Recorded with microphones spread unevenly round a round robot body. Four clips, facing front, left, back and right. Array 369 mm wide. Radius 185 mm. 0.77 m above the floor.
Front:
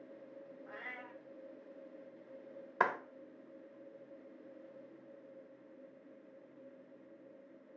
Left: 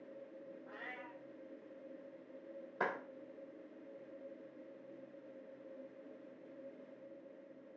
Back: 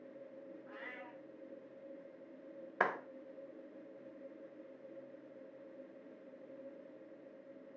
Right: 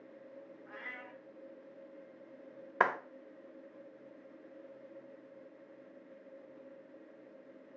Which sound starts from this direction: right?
A clap, at 2.8 s.